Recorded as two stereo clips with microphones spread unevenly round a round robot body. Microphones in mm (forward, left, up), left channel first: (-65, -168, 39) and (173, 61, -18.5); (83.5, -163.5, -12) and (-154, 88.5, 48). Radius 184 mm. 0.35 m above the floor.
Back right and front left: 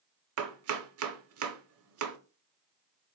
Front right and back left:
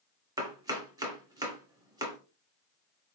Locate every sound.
0.4 s chopping: 50° left, 0.9 m